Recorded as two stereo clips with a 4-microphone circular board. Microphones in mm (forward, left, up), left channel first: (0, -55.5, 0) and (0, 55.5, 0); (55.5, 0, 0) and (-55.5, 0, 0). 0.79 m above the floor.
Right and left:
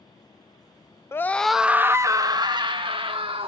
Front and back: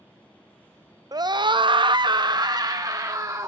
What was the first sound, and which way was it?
A scream, 145° right.